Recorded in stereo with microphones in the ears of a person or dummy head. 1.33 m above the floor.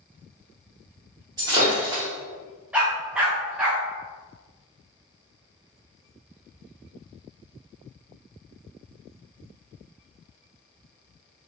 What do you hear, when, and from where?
1.4 s breaking glass: 15° right (ahead or behind), 1.0 m
2.7 s a dog barking: 10° right (ahead or behind), 0.9 m